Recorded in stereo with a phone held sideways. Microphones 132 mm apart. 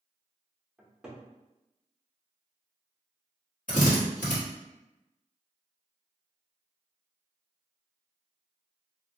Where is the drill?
75° left (ahead or behind), 1.2 m.